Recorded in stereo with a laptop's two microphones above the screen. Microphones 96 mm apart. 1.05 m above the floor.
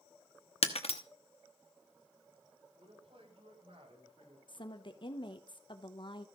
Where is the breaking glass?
80° left, 0.9 m.